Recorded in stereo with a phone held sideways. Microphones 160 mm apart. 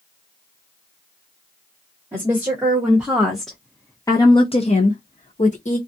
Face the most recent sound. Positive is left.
turn(degrees=50)  # may be behind; listen again after turning